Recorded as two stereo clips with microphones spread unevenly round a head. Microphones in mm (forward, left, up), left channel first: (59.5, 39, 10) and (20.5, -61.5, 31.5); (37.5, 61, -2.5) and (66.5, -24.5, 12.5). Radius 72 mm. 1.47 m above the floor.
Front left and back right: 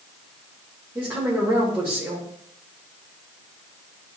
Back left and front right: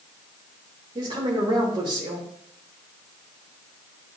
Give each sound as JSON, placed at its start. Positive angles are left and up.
{"t": 0.9, "sound": "a woman speaking", "azimuth_deg": -40, "distance_m": 2.0}